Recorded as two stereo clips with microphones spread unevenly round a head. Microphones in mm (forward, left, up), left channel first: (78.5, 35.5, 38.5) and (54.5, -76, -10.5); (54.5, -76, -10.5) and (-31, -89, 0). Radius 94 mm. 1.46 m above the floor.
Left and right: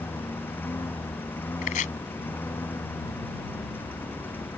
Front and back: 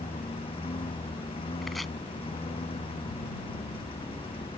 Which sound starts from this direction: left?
Chopping, at 1.6 s.